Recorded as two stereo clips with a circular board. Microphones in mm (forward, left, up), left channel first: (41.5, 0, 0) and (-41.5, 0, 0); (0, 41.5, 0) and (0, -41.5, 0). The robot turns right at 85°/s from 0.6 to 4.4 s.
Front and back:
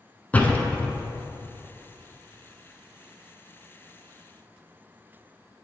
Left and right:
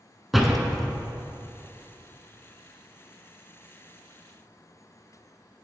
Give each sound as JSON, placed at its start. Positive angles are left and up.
{"t": 0.3, "sound": "a door slam", "azimuth_deg": -5, "distance_m": 0.7}